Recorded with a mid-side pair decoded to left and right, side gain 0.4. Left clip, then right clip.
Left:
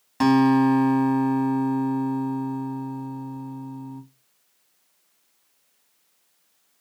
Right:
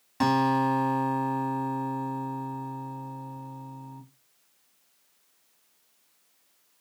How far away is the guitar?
About 1.8 m.